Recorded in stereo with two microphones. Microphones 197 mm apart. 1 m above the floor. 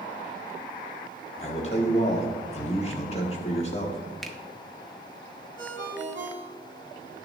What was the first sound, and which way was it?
A man speaking, 35° left (ahead or behind).